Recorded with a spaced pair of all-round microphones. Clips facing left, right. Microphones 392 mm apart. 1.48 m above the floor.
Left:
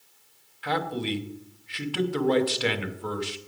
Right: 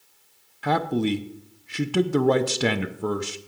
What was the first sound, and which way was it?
A man speaking, 60° right (ahead or behind).